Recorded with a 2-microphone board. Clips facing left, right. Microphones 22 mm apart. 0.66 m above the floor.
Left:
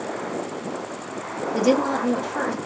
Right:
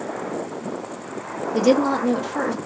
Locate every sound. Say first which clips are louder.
1.5 s a woman speaking: right 2 dB; 10° right (ahead or behind), 0.8 m